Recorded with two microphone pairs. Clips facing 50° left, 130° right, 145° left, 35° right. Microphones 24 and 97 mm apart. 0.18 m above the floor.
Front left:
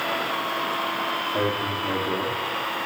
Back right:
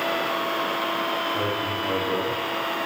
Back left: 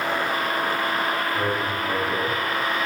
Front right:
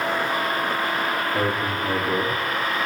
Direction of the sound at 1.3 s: 15° left.